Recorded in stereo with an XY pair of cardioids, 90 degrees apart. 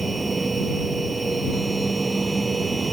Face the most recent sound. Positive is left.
turn(degrees=-25)